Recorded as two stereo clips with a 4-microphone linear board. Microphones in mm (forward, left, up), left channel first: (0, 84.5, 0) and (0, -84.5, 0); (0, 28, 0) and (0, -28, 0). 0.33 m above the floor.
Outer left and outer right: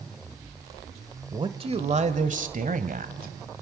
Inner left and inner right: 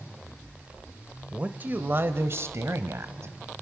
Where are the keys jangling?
I don't hear keys jangling.